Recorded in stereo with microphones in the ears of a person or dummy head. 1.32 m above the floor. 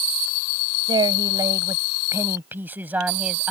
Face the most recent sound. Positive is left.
turn(degrees=-5)  # may be behind; listen again after turning